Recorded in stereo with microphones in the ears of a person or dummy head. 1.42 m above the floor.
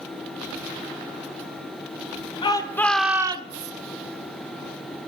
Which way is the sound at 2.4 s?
30° left (ahead or behind).